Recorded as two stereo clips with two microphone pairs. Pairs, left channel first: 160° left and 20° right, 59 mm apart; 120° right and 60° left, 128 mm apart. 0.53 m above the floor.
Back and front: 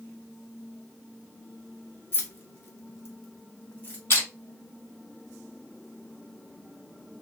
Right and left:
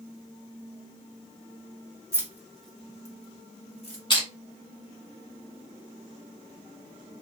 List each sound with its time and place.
2.1 s keys jangling: 125° left, 0.7 m; by 4.0 s 150° right, 1.1 m
4.1 s crushing: 165° right, 2.0 m